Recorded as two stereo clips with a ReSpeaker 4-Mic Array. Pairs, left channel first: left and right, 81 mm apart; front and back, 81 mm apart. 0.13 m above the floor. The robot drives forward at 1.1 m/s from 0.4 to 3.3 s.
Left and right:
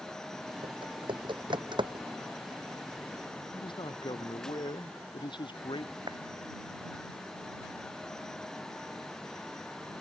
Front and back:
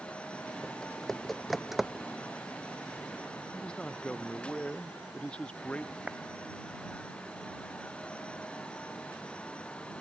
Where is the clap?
105° right.